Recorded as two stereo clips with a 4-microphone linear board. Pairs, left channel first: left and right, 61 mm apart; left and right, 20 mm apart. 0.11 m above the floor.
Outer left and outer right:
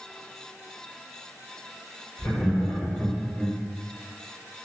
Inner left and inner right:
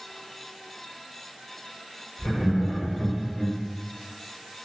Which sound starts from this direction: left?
Laughter, at 2.2 s.